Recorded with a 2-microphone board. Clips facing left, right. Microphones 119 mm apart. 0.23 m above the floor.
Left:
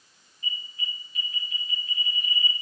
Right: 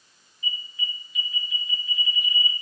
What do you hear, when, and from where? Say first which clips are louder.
0.4 s an alarm: right 2 dB; 35° left (ahead or behind), 4 m